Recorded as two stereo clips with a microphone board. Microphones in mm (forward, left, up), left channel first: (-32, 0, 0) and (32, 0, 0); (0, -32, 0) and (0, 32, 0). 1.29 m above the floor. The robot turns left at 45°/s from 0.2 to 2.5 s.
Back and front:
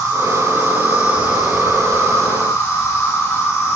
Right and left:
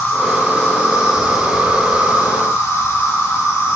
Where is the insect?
30° right, 3 m; by 3.8 s 130° right, 3 m.